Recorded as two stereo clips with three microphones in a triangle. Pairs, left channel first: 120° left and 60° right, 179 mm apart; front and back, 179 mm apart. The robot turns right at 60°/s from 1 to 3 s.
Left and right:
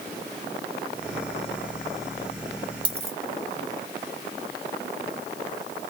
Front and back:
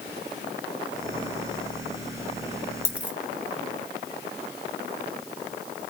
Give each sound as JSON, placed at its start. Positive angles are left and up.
{"t": 2.9, "sound": "a dropped coin", "azimuth_deg": -110, "distance_m": 1.0}